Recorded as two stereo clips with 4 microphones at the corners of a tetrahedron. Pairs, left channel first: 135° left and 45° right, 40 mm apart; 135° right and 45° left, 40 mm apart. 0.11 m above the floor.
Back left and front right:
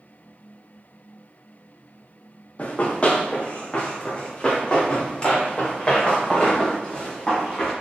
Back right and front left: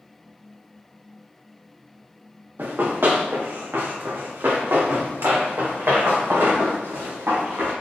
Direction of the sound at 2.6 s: 80° left.